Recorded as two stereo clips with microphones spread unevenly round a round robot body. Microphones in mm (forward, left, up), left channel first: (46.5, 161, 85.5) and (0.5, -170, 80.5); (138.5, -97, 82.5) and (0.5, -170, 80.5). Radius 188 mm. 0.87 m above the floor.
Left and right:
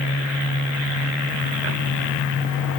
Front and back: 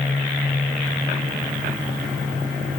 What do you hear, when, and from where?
Only background noise.